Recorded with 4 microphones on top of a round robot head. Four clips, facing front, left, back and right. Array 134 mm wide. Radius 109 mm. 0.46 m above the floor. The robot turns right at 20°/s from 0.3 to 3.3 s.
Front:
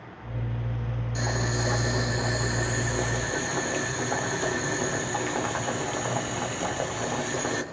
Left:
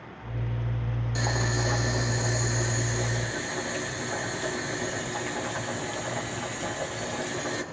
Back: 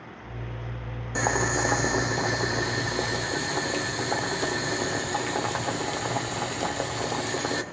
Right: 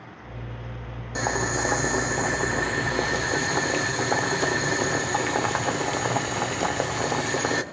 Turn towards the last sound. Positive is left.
turn(degrees=-105)